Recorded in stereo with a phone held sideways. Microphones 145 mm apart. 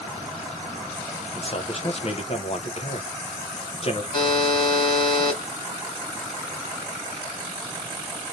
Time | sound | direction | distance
1.4 | a man speaking | 45° left (ahead or behind) | 0.7 m
4.1 | a buzzer | 35° left (ahead or behind) | 1.7 m